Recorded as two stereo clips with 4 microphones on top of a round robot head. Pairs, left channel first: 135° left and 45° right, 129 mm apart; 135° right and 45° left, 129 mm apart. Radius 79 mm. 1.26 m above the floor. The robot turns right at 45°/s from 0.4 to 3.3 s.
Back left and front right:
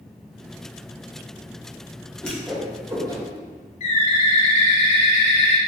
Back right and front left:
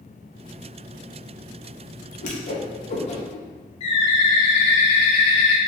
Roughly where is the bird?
Behind.